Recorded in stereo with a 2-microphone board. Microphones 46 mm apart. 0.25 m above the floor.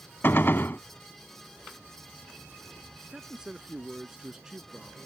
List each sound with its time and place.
0.2 s a gunshot: 50° left (ahead or behind)
3.0 s a man speaking: 15° right (ahead or behind)